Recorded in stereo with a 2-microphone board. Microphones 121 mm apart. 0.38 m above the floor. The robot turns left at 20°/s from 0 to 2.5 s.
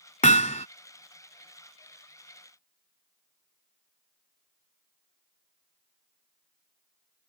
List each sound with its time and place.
0.2 s hammering: 80° left; by 0.7 s 70° left (ahead or behind)